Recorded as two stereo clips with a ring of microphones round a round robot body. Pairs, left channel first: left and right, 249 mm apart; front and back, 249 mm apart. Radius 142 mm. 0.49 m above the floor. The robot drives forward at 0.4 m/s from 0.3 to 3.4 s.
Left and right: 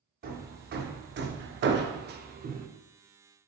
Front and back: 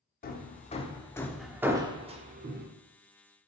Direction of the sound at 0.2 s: 45° right.